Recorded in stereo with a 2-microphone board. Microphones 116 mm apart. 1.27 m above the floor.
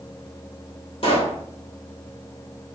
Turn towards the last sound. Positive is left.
turn(degrees=50)  # may be behind; listen again after turning